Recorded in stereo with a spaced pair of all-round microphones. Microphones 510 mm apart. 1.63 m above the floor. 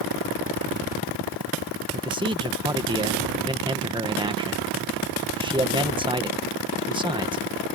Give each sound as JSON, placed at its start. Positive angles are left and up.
{"t": 1.9, "sound": "a man speaking", "side_deg": -10}